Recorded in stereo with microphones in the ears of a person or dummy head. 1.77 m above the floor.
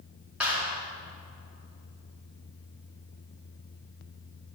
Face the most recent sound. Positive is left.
turn(degrees=-5)  # may be behind; listen again after turning